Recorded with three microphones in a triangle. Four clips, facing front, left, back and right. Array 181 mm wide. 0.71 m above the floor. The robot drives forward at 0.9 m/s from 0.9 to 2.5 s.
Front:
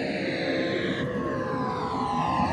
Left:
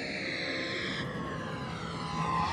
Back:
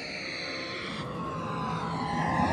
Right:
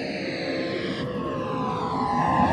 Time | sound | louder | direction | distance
0.0 | a vehicle | right 8 dB, front 12 dB | 35° right | ?